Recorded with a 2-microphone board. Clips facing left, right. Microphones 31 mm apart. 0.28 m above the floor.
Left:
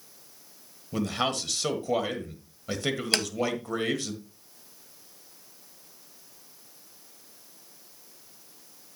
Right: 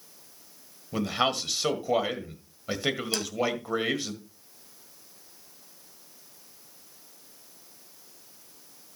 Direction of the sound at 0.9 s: 15° right (ahead or behind).